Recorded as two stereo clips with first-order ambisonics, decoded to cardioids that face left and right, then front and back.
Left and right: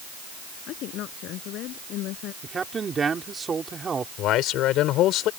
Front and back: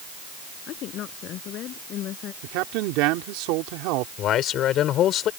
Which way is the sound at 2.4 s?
160° right.